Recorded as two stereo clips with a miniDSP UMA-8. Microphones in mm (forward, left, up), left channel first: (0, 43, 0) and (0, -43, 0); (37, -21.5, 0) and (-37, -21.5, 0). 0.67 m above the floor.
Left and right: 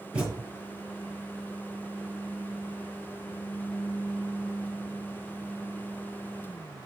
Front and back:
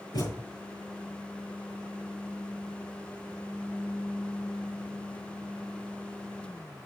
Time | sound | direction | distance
0.1 | a thud | 15° right | 5 m